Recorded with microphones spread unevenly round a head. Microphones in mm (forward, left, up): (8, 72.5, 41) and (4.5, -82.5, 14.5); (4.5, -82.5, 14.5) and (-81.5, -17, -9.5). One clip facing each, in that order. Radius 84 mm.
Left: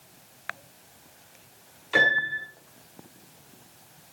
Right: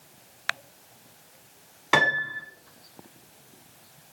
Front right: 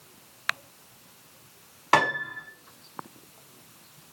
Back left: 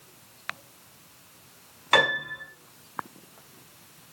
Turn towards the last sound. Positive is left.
turn(degrees=-95)